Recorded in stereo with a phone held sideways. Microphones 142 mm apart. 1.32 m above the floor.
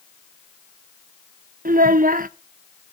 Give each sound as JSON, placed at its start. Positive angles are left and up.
{"t": 1.6, "sound": "a child speaking", "side_deg": -75, "distance_m": 0.8}